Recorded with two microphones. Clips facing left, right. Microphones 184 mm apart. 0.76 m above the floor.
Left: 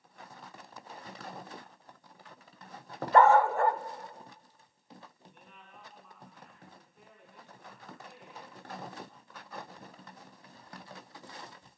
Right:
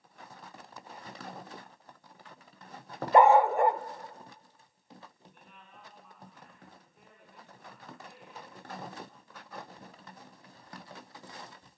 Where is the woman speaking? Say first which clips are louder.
Left 1 dB; centre (ahead or behind), 7.5 m.